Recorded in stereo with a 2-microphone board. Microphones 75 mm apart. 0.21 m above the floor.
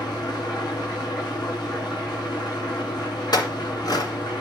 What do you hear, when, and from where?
0.0 s an engine running: 65° left (ahead or behind), 5.5 m
3.3 s a clink: 65° left (ahead or behind), 2.0 m